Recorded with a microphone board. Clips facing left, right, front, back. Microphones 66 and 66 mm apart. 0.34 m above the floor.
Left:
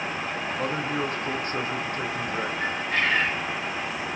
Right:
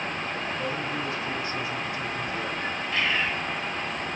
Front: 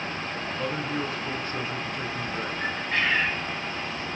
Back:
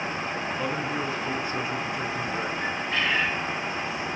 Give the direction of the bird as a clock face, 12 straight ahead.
10 o'clock.